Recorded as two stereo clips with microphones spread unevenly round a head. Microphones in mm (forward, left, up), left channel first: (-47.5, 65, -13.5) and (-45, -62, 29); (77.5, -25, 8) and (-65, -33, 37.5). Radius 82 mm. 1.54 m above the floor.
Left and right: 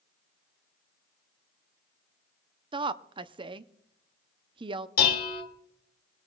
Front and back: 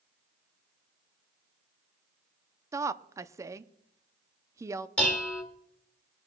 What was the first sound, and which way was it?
A woman speaking, 115° right.